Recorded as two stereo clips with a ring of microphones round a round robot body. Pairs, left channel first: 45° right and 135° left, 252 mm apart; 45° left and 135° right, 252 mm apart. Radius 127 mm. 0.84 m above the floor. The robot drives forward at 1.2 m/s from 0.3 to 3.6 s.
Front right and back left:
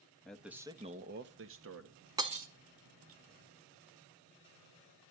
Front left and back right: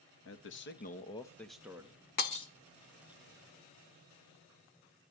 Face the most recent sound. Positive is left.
turn(degrees=160)